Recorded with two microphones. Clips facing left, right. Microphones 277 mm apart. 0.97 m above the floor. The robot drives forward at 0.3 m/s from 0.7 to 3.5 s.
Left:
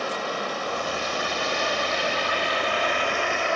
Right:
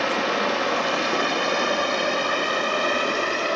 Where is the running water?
80° right, 1.0 m; by 3.6 s 40° right (ahead or behind), 1.4 m.